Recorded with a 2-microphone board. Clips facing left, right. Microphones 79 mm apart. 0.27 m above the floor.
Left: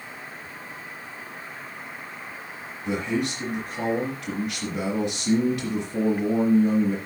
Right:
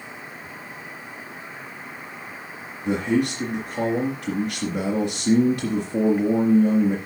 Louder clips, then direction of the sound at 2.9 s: Right 5 dB; 35° right (ahead or behind).